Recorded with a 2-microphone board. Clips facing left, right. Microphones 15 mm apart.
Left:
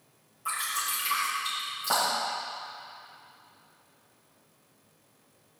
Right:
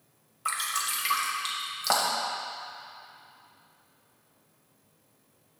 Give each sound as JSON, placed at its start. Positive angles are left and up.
{"t": 0.5, "sound": "dripping", "side_deg": -55, "distance_m": 2.5}